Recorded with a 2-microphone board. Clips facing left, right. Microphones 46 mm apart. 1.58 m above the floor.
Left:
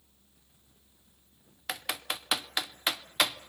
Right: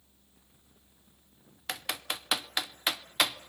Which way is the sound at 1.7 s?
5° left (ahead or behind).